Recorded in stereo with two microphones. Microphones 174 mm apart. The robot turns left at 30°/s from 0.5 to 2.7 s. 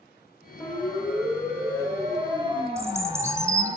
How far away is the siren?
About 3.5 m.